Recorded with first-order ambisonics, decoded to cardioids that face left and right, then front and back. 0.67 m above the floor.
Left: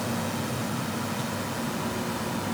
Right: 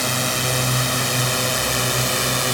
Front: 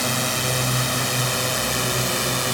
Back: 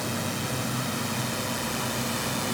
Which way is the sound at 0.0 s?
55° right.